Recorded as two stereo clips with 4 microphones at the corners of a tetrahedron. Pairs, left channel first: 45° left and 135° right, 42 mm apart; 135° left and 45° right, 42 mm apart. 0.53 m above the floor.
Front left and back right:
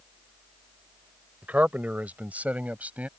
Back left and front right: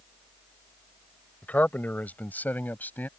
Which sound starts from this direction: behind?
A man speaking, at 1.4 s.